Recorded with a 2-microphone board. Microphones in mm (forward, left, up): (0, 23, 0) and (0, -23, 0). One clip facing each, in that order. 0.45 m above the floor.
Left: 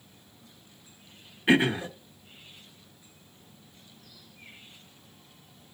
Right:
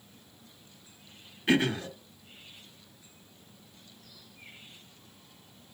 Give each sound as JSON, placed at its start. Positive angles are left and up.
{"t": 1.5, "sound": "throat clearing", "side_deg": 20, "distance_m": 0.7}